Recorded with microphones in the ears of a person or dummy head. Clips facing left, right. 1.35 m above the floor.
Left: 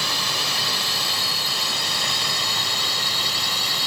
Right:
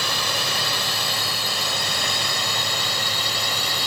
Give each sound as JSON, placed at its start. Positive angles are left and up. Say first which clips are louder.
{"t": 0.0, "sound": "a drone", "louder": "right 2 dB", "side_deg": -50}